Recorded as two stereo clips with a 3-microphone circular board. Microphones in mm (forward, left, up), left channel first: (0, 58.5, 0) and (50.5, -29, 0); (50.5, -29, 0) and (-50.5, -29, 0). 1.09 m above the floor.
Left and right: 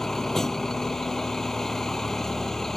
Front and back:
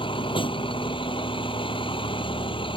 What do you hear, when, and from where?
0.0 s a vehicle: 35° left